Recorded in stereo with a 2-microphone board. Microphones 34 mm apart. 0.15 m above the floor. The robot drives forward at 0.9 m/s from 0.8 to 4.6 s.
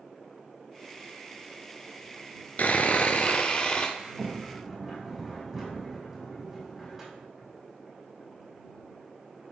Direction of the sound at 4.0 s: 5° right (ahead or behind).